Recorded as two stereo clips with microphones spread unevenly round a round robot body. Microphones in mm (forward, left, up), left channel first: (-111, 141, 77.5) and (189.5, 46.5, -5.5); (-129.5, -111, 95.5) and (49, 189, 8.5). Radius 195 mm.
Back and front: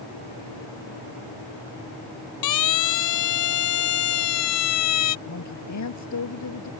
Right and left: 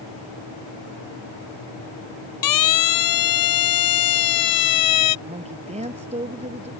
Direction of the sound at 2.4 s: 150° right.